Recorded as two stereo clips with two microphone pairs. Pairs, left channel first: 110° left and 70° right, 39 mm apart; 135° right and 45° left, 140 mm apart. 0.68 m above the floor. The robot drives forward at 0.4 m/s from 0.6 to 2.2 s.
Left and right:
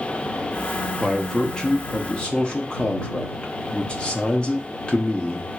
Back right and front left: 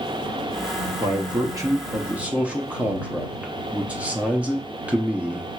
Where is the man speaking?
40° left, 0.8 m; by 5.5 s 120° left, 0.7 m.